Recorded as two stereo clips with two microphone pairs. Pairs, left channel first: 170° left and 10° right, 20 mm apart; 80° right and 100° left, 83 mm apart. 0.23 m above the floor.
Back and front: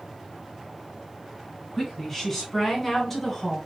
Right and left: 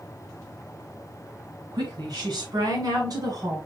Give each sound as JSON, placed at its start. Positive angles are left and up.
{"t": 1.7, "sound": "a woman speaking", "azimuth_deg": 95, "distance_m": 2.5}